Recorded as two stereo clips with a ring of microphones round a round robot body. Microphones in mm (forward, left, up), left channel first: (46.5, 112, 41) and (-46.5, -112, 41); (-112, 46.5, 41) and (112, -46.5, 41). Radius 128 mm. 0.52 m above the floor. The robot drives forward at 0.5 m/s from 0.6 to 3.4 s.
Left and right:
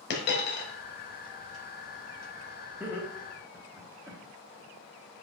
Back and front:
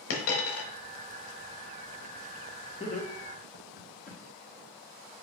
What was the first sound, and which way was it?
A dropped coin, 120° left.